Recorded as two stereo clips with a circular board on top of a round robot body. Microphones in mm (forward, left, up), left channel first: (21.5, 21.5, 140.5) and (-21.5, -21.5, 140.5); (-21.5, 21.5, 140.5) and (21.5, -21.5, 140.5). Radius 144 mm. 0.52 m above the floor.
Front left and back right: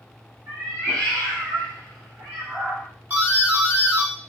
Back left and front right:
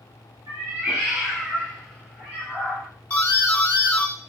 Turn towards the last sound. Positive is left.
turn(degrees=-175)